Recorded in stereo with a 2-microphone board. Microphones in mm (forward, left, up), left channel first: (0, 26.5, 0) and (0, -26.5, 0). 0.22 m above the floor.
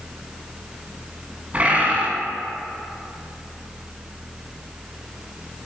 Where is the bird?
25° right (ahead or behind), 1.4 m.